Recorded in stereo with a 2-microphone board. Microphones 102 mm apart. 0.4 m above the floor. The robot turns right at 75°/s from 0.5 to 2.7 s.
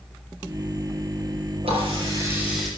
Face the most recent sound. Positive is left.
turn(degrees=5)